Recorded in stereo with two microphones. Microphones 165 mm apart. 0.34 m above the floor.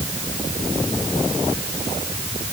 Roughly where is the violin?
I don't hear a violin.